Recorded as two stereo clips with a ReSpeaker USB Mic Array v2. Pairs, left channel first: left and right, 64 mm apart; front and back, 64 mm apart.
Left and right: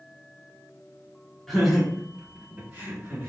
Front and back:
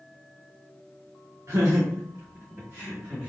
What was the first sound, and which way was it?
Laughter, 175° left.